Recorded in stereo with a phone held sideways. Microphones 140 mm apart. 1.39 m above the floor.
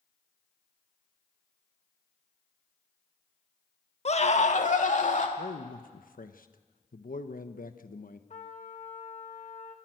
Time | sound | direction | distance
4.0 | a scream | 50° left (ahead or behind) | 1.3 m
5.4 | a man speaking | 85° left | 1.2 m
8.3 | a trumpet | 55° left (ahead or behind) | 2.0 m